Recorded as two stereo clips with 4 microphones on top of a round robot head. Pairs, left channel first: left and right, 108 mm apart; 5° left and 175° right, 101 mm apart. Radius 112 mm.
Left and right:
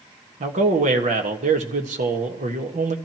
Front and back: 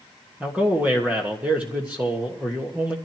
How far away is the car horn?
No car horn in this recording.